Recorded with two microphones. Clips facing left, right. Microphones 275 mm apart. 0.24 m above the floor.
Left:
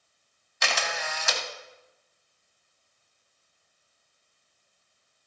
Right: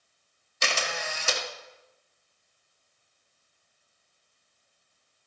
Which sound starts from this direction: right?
A camera shutter, at 0.6 s.